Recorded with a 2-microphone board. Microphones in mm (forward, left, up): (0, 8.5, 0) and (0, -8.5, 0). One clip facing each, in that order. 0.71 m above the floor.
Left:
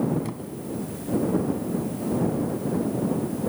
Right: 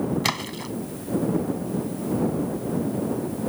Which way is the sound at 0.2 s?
80° right.